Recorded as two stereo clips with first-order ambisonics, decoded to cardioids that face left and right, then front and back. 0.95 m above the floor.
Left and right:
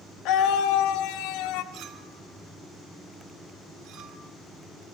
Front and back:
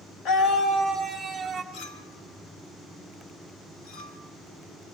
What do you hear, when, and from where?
0.2 s a scream: 55° left, 1.1 m; by 1.6 s 100° left, 1.8 m
1.7 s a clink: 50° right, 1.4 m